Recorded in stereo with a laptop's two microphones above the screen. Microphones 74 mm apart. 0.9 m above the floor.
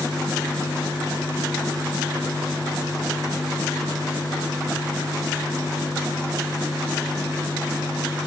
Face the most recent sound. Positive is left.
turn(degrees=-60)  # may be behind; listen again after turning